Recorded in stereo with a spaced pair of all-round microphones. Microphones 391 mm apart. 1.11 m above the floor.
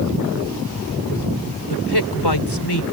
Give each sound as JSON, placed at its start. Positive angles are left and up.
{"t": 1.7, "sound": "a man speaking", "side_deg": 85}